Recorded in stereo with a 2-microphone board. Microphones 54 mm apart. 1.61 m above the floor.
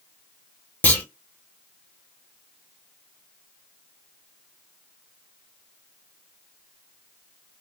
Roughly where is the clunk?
Left.